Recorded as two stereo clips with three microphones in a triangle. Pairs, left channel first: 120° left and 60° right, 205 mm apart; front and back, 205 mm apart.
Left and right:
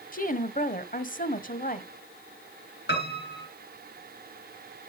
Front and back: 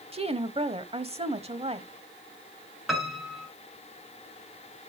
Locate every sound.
0.1 s a woman speaking: 135° left, 1.1 m
2.9 s a piano: 90° left, 4.5 m